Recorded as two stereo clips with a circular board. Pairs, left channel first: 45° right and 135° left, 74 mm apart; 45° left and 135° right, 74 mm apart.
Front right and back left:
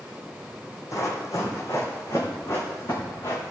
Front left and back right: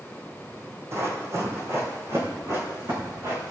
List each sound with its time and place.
0.9 s running footsteps: 85° right, 2.5 m; by 3.5 s 90° right, 5 m